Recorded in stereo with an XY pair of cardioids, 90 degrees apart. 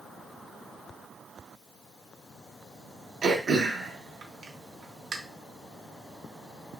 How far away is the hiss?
No hiss in this recording.